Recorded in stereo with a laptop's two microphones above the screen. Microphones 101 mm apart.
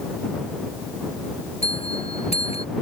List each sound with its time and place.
1.6 s a bell: 75° left (ahead or behind)